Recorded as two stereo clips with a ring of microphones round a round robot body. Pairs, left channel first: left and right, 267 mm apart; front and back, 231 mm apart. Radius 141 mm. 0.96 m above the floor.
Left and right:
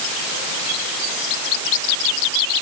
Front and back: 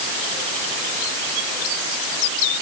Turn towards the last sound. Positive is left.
No sound to turn to.